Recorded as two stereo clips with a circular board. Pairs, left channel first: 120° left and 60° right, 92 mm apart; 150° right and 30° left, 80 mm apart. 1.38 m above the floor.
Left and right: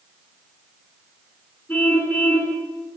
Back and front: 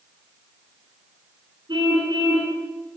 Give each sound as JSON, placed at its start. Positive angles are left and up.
{"t": 1.7, "sound": "a car horn", "azimuth_deg": 45, "distance_m": 9.0}